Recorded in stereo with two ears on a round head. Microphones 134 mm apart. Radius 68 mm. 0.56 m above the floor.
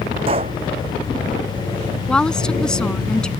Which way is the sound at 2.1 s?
5° left (ahead or behind).